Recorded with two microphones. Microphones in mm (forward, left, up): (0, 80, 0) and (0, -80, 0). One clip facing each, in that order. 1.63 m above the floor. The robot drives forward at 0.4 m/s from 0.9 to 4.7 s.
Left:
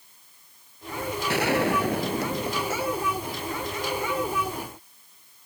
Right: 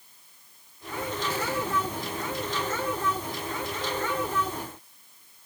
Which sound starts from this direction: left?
A gunshot, at 1.3 s.